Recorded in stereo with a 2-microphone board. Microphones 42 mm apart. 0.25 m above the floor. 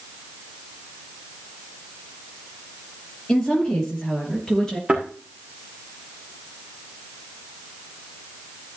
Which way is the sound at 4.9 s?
25° right (ahead or behind).